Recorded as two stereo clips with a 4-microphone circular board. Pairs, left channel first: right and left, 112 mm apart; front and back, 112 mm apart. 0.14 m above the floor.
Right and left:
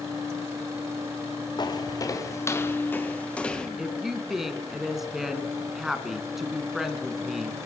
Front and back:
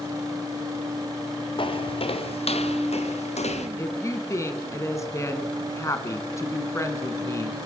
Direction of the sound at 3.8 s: 5° left.